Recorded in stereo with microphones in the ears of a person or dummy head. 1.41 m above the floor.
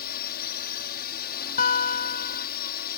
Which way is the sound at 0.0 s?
55° left (ahead or behind).